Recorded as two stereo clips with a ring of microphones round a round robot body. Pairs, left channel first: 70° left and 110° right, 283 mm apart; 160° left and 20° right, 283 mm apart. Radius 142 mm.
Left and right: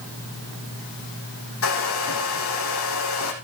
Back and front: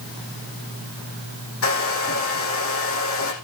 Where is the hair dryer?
110° left, 4 m.